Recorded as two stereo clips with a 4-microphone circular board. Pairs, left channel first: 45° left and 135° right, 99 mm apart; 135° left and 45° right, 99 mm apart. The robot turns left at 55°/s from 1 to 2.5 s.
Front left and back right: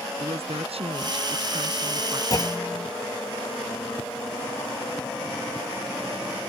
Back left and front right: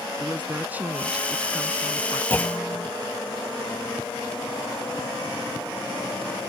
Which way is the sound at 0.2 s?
120° right.